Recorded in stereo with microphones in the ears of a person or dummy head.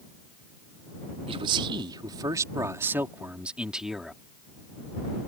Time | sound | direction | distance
1.3 | a man speaking | 30° right (ahead or behind) | ?